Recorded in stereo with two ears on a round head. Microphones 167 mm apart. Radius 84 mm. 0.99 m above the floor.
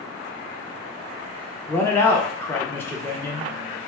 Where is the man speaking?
10° left (ahead or behind), 0.6 m.